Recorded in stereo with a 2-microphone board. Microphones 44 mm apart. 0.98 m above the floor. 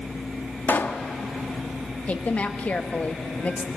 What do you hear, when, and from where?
0.7 s a pop: 55° left (ahead or behind), 1.2 m
2.1 s a woman speaking: 35° left (ahead or behind), 1.6 m